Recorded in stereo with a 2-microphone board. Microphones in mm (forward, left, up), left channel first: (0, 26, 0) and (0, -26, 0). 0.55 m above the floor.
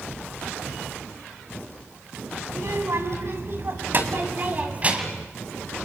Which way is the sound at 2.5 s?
65° right (ahead or behind).